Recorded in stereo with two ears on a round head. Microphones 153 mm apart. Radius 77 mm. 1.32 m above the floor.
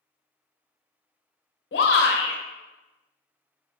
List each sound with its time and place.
1.7 s a shout: 65° left (ahead or behind), 0.7 m